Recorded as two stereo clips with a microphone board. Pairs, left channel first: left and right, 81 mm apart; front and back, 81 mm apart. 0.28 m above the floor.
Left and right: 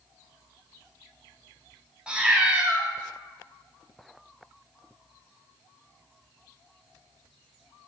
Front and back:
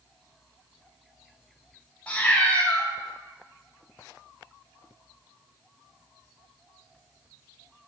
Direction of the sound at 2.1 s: 35° right.